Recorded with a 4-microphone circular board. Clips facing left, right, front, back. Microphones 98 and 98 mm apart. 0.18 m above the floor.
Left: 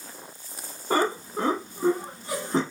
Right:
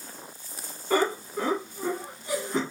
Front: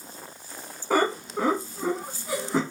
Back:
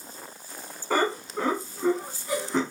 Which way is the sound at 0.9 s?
80° left.